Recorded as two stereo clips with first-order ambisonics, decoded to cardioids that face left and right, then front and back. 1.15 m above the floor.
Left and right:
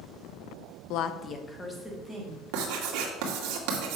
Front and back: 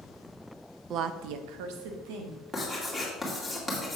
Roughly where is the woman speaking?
Behind left.